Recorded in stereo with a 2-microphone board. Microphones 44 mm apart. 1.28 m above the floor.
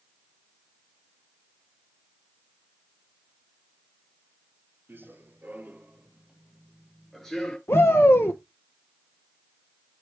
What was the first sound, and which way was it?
Running footsteps, 50° right (ahead or behind).